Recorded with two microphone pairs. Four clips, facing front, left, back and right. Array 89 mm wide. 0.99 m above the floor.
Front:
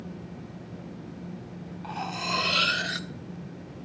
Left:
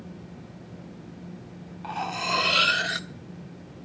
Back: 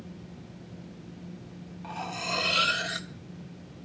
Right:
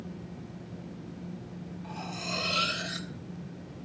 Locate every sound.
1.8 s cutlery clinking: 75° left, 1.3 m